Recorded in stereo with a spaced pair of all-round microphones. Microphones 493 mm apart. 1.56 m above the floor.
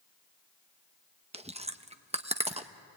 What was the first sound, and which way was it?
Chewing, 15° right (ahead or behind).